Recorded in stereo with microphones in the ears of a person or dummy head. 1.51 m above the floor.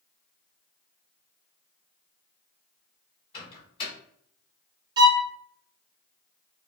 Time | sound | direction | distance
3.3 | a microwave | 30° left (ahead or behind) | 1.6 m
5.0 | a violin | 20° right (ahead or behind) | 0.5 m